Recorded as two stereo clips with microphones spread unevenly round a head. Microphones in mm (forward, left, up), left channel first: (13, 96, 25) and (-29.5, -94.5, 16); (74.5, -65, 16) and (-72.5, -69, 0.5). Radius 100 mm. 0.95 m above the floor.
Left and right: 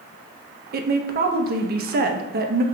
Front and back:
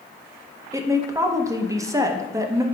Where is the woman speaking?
120° right, 0.6 m.